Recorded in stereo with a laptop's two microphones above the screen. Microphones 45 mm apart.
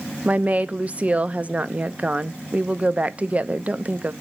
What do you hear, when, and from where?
0.2 s a woman speaking: 30° right (ahead or behind), 0.7 m